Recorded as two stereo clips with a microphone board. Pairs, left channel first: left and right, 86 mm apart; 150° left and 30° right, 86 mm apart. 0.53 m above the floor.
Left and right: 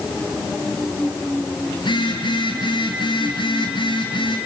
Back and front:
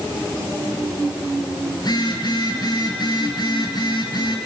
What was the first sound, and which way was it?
A phone buzzing, 115° left.